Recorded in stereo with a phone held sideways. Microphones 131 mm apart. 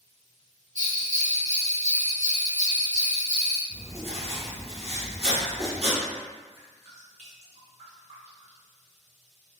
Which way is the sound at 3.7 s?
50° right (ahead or behind).